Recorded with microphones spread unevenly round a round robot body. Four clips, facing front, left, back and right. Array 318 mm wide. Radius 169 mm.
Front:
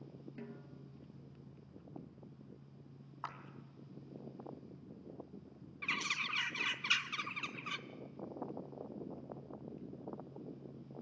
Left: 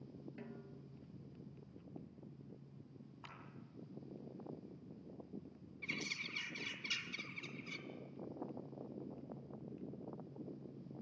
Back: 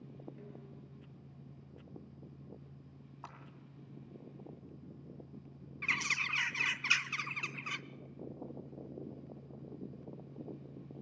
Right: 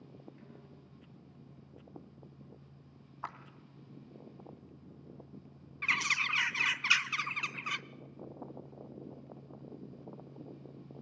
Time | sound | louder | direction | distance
0.4 | a snare drum | left 2 dB, front 1 dB | 40° left | 4.5 m
3.2 | a clap | right 16 dB, front 6 dB | 70° right | 2.5 m
5.8 | a bird | right 13 dB, back 3 dB | 95° right | 0.6 m